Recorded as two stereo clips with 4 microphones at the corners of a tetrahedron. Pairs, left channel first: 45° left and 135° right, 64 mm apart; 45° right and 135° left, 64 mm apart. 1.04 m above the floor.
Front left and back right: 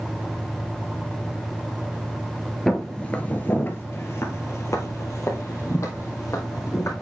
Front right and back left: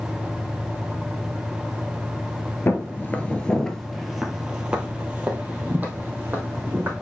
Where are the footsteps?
35° right, 1.2 m; by 6.9 s 80° left, 3 m.